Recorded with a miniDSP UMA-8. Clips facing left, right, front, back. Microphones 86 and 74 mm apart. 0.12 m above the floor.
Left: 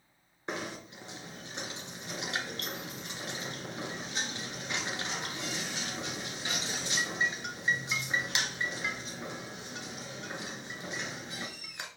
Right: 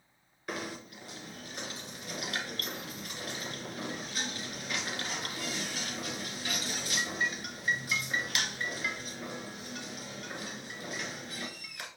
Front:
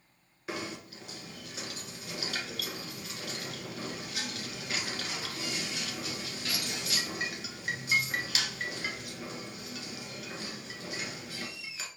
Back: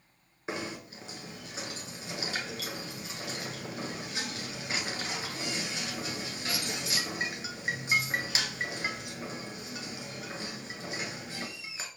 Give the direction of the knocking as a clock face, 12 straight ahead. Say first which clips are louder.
Left 1 dB, back 1 dB; 7 o'clock.